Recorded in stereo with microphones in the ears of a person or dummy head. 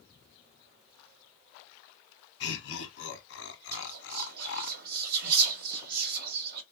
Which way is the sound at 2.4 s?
70° left (ahead or behind).